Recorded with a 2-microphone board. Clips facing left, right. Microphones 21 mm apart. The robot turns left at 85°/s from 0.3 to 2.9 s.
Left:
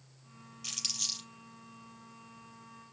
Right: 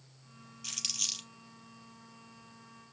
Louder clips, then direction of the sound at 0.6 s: Even; 10° left (ahead or behind).